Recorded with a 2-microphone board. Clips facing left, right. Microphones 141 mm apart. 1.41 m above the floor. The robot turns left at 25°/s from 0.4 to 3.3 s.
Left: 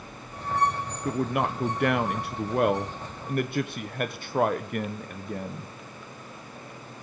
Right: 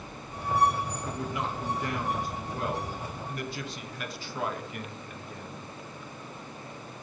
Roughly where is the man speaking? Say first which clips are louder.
Left 12 dB; behind left.